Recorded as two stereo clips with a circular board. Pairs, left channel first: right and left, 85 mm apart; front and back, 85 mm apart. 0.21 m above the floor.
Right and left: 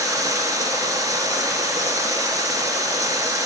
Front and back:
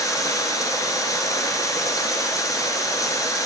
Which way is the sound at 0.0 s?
50° left.